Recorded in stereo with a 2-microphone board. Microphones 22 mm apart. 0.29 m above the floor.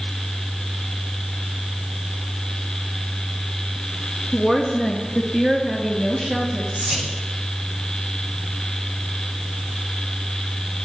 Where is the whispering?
75° right (ahead or behind), 6 m.